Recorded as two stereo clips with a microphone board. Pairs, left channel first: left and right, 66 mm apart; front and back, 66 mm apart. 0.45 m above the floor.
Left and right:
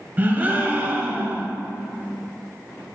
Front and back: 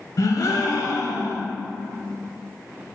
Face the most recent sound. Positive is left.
turn(degrees=-25)